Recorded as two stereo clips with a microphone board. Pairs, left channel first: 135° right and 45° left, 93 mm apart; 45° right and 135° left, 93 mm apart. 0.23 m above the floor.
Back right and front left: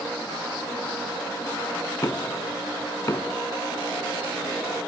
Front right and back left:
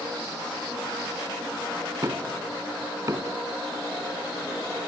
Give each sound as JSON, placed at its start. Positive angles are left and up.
{"t": 2.0, "sound": "knocking", "azimuth_deg": 180}